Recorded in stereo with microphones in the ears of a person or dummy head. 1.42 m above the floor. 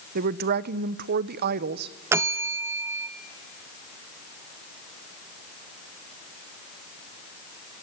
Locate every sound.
0.1 s a woman speaking: 50° right (ahead or behind), 0.8 m
2.1 s a bell: 10° right (ahead or behind), 0.5 m